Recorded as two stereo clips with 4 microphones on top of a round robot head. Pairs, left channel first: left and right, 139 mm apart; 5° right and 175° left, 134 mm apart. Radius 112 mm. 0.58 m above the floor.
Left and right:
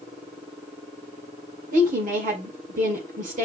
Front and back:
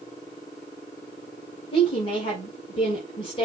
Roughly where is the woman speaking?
Ahead right.